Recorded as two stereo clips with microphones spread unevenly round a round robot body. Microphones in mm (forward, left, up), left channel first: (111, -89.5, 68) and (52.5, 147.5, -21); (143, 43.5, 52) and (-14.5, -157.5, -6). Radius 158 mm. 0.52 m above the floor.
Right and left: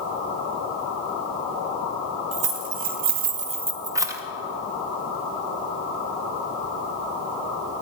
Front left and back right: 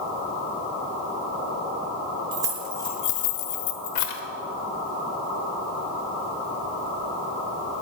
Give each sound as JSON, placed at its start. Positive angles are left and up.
{"t": 2.3, "sound": "keys jangling", "azimuth_deg": 165, "distance_m": 1.3}